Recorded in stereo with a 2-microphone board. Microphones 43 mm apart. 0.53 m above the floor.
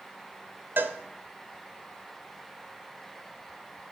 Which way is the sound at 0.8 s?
60° right (ahead or behind).